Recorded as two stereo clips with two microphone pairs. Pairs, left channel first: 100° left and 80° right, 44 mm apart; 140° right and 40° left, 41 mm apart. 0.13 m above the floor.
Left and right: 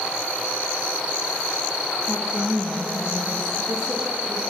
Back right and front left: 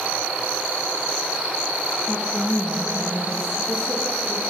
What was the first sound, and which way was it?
A woman speaking, 15° left.